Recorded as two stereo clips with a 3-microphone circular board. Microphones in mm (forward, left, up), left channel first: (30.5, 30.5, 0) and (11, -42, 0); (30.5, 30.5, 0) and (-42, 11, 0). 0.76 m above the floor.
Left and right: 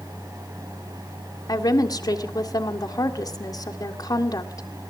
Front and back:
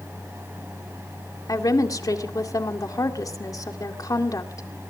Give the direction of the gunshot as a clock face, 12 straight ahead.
I don't hear a gunshot.